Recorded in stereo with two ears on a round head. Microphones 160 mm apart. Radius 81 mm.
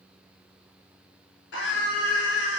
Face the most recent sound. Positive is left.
turn(degrees=65)  # may be behind; listen again after turning